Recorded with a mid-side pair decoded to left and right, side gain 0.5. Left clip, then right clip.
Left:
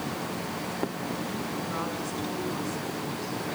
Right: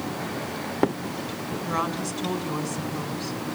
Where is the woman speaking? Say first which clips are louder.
Right 5 dB; 55° right, 5 m.